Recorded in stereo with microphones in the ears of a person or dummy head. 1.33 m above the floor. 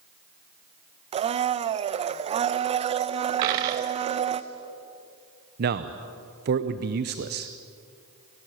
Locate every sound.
1.1 s a blender: 35° right (ahead or behind), 0.7 m
3.4 s a dropped coin: 20° right (ahead or behind), 0.6 m
5.6 s a man speaking: 55° right (ahead or behind), 0.7 m